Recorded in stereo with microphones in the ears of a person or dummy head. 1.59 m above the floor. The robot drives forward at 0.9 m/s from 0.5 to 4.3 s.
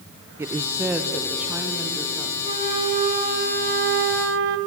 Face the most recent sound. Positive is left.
turn(degrees=-75)  # may be behind; listen again after turning